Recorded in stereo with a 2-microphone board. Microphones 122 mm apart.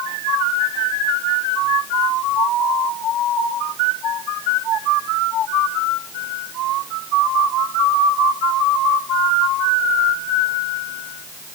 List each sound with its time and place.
Only background noise.